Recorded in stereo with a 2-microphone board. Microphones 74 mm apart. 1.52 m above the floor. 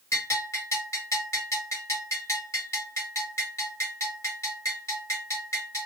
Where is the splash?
No splash in this recording.